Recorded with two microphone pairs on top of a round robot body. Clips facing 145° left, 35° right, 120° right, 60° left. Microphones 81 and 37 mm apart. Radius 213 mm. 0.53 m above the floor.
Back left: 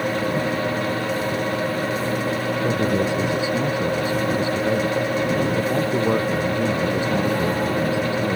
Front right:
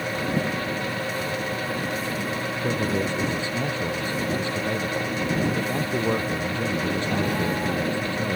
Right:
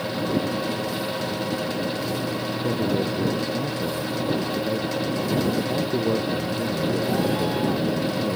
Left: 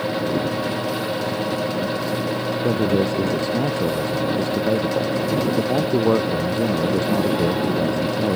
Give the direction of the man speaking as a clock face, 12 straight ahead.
10 o'clock.